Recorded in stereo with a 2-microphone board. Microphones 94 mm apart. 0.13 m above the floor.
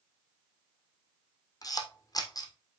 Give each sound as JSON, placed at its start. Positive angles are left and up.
{"t": 1.6, "sound": "a camera shutter", "side_deg": 40, "distance_m": 1.8}